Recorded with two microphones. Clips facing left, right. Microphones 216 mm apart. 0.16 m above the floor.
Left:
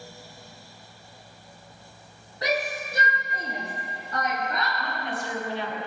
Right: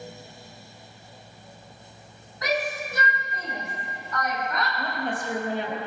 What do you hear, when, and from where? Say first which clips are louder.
2.4 s a shout: even; 30° left (ahead or behind), 5.5 m
4.8 s a woman speaking: right 3 dB; 50° right (ahead or behind), 4.5 m